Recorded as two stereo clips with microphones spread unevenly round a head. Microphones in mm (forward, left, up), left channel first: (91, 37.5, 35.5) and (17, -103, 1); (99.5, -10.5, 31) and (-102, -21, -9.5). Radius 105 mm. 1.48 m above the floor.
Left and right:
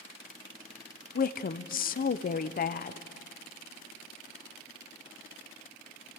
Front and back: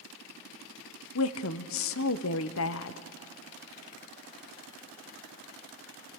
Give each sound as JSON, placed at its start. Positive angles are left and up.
{"t": 1.1, "sound": "a woman speaking", "azimuth_deg": 30, "distance_m": 0.6}